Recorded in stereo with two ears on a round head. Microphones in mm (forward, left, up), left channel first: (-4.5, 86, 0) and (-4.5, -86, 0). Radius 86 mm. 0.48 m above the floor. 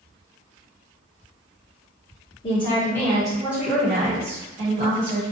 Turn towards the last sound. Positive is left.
turn(degrees=-50)  # may be behind; listen again after turning